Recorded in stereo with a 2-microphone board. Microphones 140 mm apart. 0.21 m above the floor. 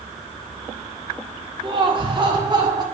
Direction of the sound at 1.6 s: 35° right (ahead or behind).